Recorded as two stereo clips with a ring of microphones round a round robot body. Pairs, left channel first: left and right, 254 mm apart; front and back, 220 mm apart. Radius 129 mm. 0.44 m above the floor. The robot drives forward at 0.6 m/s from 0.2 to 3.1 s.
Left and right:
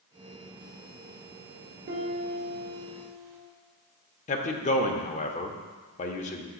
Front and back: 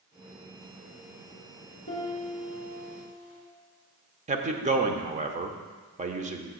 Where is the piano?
50° right, 3 m; by 3.4 s 65° right, 2.5 m.